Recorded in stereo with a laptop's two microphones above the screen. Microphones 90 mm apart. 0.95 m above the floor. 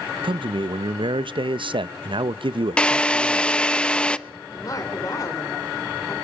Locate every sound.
0.2 s a man speaking: 65° right (ahead or behind), 0.6 m
2.8 s a drill: 10° left (ahead or behind), 0.5 m
4.5 s a woman speaking: 40° left (ahead or behind), 3 m